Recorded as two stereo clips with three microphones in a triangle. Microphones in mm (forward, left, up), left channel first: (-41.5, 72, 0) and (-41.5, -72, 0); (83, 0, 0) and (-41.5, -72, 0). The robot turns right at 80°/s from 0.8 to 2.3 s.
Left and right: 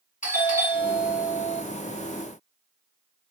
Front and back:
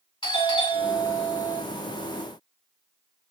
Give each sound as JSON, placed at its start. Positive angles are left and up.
{"t": 0.2, "sound": "a doorbell", "azimuth_deg": 80, "distance_m": 3.5}